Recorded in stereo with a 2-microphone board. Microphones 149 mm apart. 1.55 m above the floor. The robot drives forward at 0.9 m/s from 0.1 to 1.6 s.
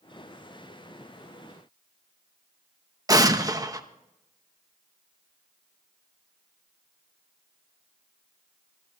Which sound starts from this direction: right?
An explosion, at 3.1 s.